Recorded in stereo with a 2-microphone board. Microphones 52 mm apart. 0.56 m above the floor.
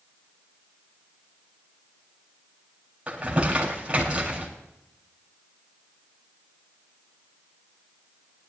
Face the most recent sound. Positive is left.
turn(degrees=-25)  # may be behind; listen again after turning